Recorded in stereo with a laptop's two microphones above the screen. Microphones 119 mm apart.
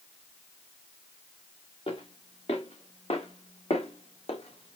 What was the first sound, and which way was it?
Footsteps, 50° left (ahead or behind).